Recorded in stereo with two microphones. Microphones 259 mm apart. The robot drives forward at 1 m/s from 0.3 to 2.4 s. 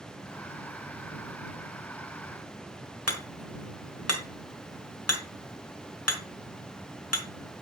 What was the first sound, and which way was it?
Hammering, 70° left (ahead or behind).